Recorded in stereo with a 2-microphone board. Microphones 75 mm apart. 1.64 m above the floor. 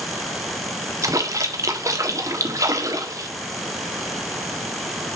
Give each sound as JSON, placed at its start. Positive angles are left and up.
{"t": 1.0, "sound": "a splash", "side_deg": -45, "distance_m": 1.5}